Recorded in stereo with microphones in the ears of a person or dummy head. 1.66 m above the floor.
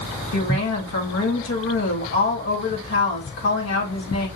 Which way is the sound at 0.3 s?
85° left.